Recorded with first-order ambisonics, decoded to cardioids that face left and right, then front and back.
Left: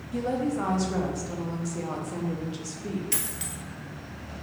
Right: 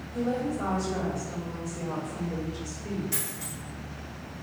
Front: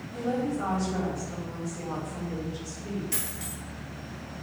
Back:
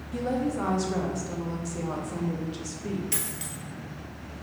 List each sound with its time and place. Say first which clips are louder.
0.1 s a woman speaking: left 2 dB, back 1 dB; 130° left, 0.7 m
3.1 s a dropped coin: left 2 dB, back 1 dB; 115° left, 1.0 m